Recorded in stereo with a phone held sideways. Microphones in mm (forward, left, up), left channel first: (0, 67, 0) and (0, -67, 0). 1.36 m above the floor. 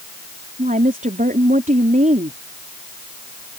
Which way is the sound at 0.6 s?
85° right.